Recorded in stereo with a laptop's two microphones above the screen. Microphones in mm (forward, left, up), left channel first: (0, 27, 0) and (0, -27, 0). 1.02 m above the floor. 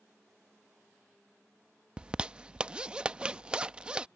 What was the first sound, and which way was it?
A zipper, 15° right (ahead or behind).